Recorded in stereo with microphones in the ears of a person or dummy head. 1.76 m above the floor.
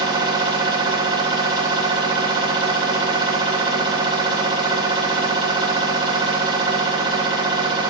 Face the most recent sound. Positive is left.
turn(degrees=-25)  # may be behind; listen again after turning